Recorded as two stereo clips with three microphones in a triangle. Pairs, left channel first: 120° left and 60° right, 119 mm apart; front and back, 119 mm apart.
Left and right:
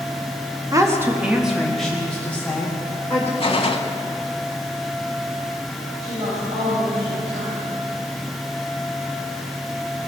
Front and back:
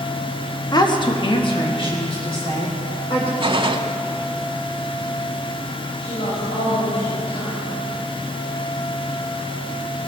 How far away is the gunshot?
About 0.8 m.